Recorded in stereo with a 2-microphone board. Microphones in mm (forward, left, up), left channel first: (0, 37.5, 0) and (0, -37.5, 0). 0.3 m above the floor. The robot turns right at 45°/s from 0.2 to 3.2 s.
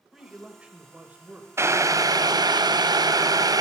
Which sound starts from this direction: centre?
A man speaking, at 0.1 s.